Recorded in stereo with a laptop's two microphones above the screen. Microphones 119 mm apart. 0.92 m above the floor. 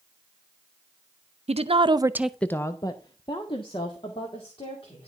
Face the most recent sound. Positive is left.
turn(degrees=50)  # may be behind; listen again after turning